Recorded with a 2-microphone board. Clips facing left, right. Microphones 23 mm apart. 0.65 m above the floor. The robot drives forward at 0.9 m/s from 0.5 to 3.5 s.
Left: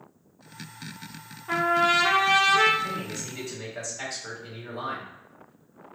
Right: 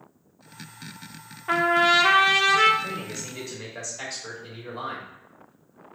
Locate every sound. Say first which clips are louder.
1.5 s a trumpet: right 3 dB; 35° right (ahead or behind), 0.5 m; by 2.7 s 15° right (ahead or behind), 1.1 m
2.8 s a man speaking: left 1 dB; 35° right (ahead or behind), 1.8 m; by 5.1 s 25° right (ahead or behind), 2.5 m